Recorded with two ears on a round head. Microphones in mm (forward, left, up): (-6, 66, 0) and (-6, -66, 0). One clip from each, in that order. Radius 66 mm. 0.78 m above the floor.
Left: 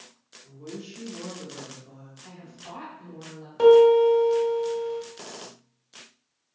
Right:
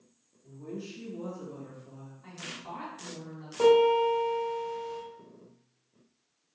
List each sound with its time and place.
0.4 s a woman speaking: centre (ahead or behind), 1.0 m
2.2 s a woman speaking: 5° left (ahead or behind), 1.3 m
3.6 s a piano: 15° left (ahead or behind), 1.6 m